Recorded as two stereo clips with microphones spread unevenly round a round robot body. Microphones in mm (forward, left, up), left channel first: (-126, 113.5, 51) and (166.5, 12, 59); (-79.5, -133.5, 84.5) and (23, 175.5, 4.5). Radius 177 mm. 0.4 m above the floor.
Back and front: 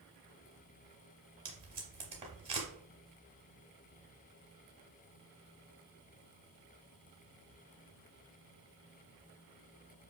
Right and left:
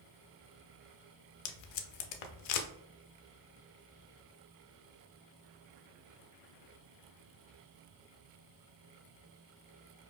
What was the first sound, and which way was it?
Tape being pulled, 95° right.